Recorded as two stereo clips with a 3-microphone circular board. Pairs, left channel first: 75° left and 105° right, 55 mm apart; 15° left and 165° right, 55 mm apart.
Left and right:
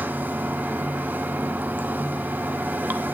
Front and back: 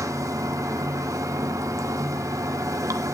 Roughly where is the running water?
Behind.